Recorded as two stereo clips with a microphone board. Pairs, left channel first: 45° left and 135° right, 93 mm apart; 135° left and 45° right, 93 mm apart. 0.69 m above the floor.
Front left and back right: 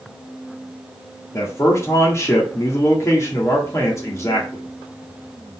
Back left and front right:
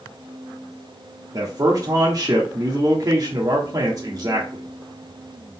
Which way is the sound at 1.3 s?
5° right.